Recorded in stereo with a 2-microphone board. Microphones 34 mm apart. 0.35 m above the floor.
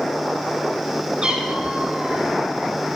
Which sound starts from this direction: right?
A cat meowing, at 1.2 s.